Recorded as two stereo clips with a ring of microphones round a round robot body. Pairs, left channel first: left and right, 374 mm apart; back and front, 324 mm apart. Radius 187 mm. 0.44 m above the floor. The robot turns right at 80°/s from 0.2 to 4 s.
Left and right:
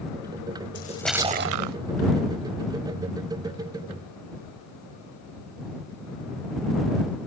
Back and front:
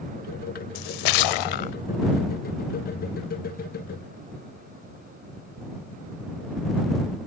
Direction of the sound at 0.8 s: 155° left.